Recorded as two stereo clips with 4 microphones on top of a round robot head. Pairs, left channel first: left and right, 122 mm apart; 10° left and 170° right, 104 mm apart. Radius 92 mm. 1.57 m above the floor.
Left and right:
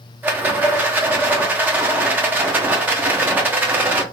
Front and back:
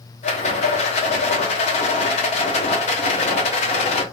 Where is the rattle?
15° right, 0.7 m.